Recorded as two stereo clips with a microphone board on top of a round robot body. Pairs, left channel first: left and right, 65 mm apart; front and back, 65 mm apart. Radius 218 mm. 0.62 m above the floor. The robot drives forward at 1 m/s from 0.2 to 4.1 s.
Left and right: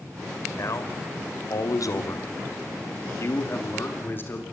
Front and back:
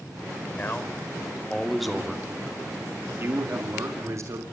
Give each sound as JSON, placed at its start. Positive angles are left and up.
{"t": 0.6, "sound": "a man speaking", "azimuth_deg": 55, "distance_m": 2.5}